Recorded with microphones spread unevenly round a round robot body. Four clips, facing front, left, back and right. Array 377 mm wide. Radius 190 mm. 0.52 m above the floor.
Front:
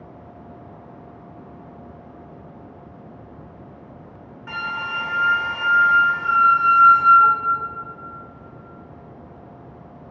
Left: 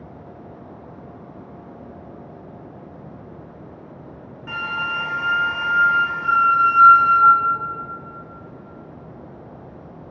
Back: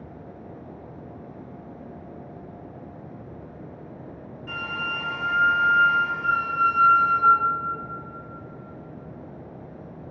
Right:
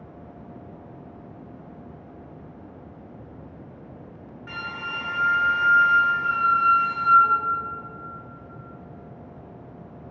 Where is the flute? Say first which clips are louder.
Left 7 dB, front 4 dB; 5° left, 0.8 m.